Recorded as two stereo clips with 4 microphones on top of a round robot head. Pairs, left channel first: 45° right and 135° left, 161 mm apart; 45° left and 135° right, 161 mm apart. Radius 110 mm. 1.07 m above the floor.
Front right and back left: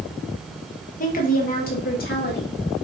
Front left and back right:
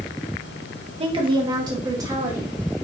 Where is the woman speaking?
80° right, 1.6 m; by 2.6 s 65° right, 2.5 m.